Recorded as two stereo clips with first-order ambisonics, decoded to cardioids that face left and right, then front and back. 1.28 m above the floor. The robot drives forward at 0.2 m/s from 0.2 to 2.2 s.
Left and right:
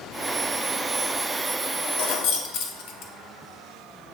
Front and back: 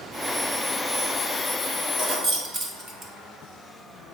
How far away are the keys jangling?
About 0.9 m.